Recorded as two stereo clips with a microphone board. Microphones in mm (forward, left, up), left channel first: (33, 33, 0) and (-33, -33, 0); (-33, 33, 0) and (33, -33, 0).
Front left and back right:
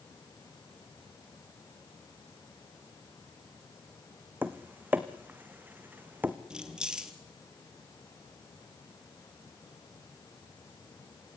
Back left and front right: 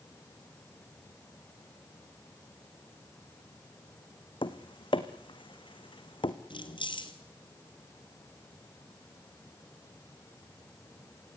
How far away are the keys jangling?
About 2 m.